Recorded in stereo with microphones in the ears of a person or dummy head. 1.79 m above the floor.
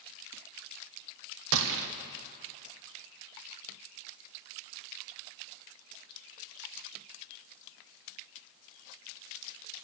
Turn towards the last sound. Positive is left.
turn(degrees=-70)  # may be behind; listen again after turning